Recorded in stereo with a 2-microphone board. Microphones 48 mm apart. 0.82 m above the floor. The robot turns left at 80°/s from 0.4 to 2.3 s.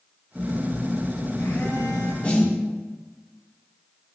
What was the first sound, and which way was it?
A phone buzzing, 150° right.